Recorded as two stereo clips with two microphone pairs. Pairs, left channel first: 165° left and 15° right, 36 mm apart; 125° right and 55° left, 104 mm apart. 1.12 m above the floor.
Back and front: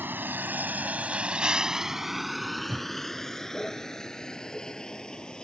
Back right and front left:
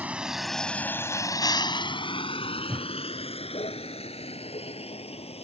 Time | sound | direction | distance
0.0 | a vehicle | 20° right | ?
2.7 | a whoosh | 30° right | ?